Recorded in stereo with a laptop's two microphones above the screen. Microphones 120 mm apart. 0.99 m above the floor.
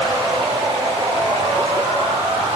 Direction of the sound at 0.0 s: 65° right (ahead or behind).